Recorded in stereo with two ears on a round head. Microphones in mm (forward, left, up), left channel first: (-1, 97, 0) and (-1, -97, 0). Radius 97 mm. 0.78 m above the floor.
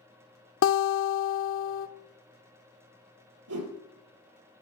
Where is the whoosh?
80° right, 3 m.